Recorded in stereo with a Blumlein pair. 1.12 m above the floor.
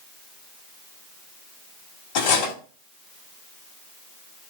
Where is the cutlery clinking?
50° left, 1.6 m.